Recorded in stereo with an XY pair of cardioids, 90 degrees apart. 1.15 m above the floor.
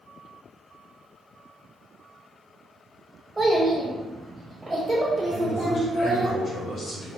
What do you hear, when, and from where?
3.4 s a child speaking: 10° right, 0.9 m
5.3 s a man speaking: 45° left, 0.8 m